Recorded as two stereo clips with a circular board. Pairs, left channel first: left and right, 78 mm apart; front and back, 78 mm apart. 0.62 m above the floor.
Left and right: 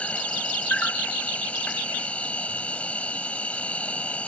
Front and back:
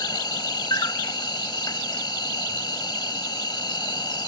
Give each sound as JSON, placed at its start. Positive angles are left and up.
{"t": 0.0, "sound": "an insect", "azimuth_deg": 20}